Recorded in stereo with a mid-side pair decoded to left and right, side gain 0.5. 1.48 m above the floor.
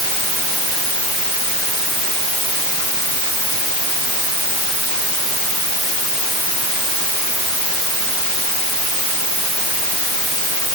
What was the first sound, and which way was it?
Only background noise.